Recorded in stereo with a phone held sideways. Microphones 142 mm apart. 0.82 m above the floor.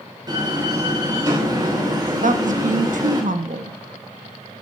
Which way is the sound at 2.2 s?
65° right (ahead or behind).